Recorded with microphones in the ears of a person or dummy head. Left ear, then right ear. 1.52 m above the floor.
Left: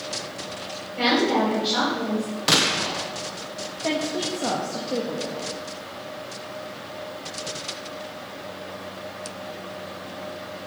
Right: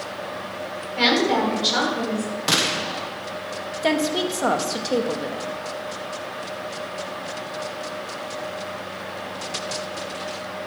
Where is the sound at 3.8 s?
70° right (ahead or behind), 1.8 m.